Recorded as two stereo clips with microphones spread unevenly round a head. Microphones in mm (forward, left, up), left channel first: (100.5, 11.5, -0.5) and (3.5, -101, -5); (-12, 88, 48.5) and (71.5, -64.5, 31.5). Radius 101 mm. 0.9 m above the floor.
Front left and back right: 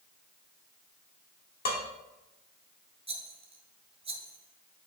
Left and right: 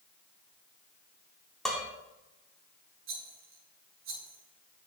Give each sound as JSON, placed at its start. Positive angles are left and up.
{"t": 1.6, "sound": "dishes clattering", "azimuth_deg": 30, "distance_m": 1.4}
{"t": 3.1, "sound": "a rattle", "azimuth_deg": -85, "distance_m": 2.0}